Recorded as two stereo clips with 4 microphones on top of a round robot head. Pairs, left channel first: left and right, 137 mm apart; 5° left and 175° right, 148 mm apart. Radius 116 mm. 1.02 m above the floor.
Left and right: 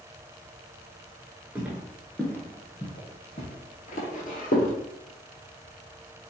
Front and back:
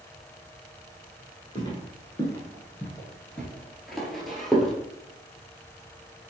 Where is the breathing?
No breathing in this recording.